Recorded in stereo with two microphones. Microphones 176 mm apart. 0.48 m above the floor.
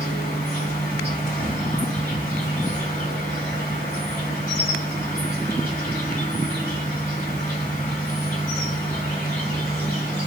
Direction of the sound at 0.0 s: 45° left (ahead or behind).